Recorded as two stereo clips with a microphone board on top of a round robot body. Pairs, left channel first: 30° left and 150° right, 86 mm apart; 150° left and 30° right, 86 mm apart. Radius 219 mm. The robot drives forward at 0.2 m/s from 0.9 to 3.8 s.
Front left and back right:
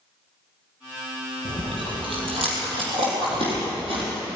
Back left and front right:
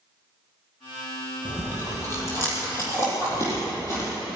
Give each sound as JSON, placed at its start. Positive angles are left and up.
{"t": 1.4, "sound": "chewing", "azimuth_deg": -145, "distance_m": 4.0}